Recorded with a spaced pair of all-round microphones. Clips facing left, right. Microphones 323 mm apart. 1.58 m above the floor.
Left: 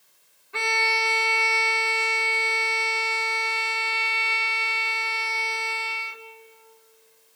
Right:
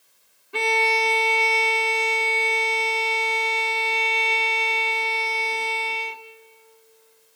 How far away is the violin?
About 0.7 m.